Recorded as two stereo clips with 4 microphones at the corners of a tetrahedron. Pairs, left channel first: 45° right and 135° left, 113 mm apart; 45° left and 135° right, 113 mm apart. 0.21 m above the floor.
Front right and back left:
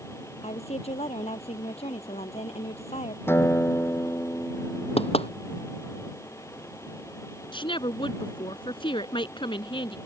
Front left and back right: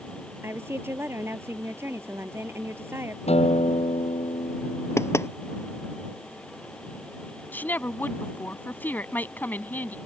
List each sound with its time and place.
0.4 s a woman speaking: 65° right
3.3 s a guitar: 25° left
5.0 s knocking: 20° right
7.5 s a woman speaking: 25° right